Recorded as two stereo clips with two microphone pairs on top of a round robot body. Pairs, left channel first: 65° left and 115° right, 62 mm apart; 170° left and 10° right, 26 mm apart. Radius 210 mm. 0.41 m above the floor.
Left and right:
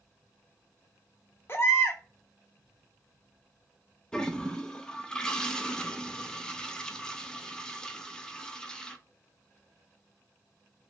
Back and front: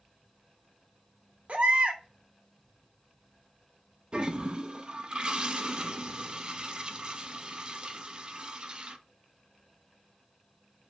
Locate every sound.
1.5 s a baby crying: 15° left, 0.9 m
4.1 s a toilet flushing: 5° right, 0.8 m